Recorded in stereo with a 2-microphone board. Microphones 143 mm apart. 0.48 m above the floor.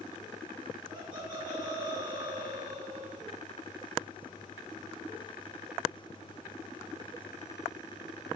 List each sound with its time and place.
0.9 s laughter: 35° right (ahead or behind), 1.5 m